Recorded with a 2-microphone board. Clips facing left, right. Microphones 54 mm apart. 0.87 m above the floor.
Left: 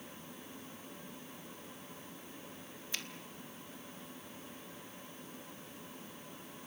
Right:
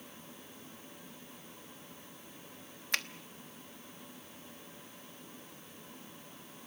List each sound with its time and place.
2.9 s a finger snap: 70° right (ahead or behind), 0.9 m